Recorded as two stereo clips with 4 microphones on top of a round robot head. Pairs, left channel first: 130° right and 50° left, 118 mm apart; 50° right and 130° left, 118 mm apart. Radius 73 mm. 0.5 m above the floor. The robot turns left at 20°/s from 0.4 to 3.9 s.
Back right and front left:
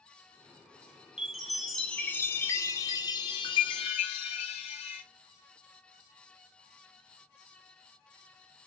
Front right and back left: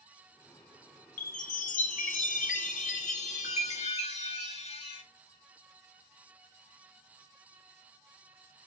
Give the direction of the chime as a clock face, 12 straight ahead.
1 o'clock.